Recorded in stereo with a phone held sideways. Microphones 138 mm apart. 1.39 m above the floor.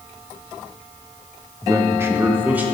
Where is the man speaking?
25° right (ahead or behind), 0.7 m; by 2.6 s 10° right (ahead or behind), 1.8 m.